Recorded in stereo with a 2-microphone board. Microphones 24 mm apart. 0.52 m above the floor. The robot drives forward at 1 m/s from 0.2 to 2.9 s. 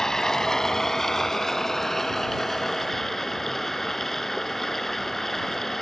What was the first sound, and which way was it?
Running water, 25° left (ahead or behind).